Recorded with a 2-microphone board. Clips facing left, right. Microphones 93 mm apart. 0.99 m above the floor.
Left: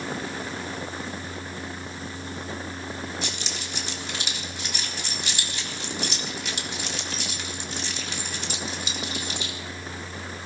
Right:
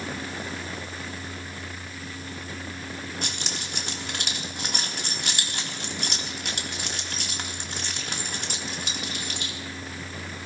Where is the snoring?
No snoring in this recording.